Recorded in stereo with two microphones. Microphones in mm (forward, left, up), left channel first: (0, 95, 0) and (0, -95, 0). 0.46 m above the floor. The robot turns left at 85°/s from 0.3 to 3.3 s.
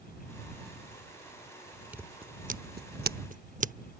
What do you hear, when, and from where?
1.9 s scissors: 10° right (ahead or behind); by 3.7 s 45° right (ahead or behind)